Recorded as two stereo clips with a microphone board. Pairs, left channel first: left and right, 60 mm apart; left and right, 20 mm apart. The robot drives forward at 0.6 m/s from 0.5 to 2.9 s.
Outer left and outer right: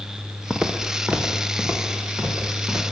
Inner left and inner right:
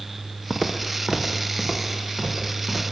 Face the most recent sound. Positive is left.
turn(degrees=-35)  # may be behind; listen again after turning